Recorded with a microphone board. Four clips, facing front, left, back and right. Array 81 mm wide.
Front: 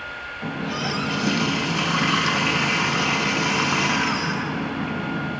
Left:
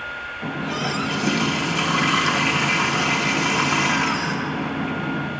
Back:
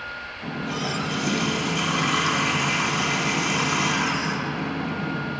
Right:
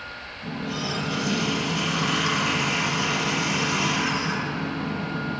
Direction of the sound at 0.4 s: 60° left.